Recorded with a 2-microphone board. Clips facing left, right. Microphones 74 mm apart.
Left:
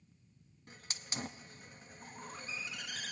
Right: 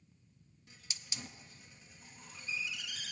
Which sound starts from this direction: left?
A hiss, at 0.7 s.